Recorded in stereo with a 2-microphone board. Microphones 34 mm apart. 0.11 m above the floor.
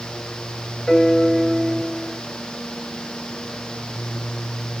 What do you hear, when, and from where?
0.9 s a piano: 5° left (ahead or behind), 2.5 m